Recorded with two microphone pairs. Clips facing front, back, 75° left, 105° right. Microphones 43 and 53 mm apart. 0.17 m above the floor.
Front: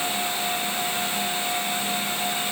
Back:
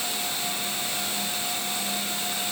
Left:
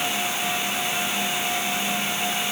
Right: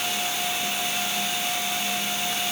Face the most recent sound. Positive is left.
No sound to turn to.